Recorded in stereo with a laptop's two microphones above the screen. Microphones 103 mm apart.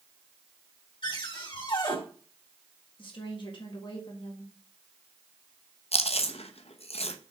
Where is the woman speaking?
50° left (ahead or behind), 1.6 m.